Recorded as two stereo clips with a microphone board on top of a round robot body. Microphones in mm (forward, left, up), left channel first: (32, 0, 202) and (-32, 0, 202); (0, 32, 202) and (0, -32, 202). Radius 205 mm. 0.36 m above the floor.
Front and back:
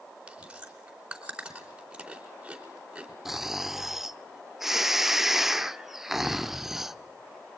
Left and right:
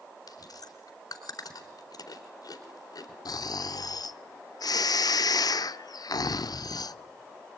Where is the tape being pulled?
I don't hear tape being pulled.